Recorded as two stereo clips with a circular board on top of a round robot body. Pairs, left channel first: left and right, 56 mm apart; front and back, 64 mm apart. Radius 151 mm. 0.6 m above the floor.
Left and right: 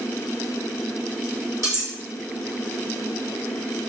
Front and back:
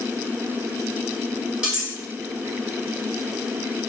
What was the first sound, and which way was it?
Cutlery clinking, 110° right.